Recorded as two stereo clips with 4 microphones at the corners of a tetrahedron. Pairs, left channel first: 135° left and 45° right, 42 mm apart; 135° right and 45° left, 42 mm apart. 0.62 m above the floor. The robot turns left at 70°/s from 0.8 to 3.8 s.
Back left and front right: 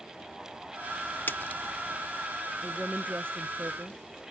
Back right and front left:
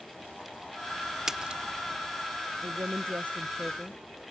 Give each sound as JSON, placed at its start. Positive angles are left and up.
{"t": 1.3, "sound": "a splash", "azimuth_deg": 125}
{"t": 2.6, "sound": "a woman speaking", "azimuth_deg": 35}